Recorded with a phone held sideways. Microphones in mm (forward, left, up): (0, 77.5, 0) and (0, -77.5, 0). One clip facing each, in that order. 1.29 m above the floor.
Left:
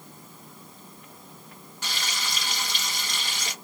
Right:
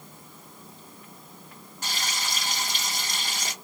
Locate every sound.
1.8 s frying: 45° right (ahead or behind), 2.0 m